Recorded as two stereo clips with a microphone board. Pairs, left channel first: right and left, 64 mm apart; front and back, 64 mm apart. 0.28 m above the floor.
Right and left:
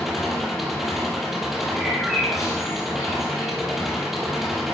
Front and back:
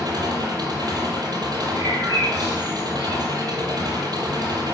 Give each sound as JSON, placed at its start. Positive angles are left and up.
{"t": 0.0, "sound": "an engine running", "azimuth_deg": 175, "distance_m": 6.5}
{"t": 1.8, "sound": "a bird", "azimuth_deg": 175, "distance_m": 7.0}